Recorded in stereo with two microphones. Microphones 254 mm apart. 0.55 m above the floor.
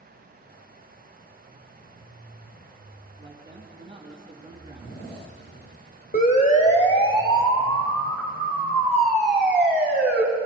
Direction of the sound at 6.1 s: 35° left (ahead or behind).